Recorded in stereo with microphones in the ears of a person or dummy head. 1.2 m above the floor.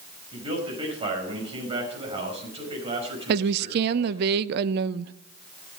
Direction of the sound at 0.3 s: 35° right (ahead or behind).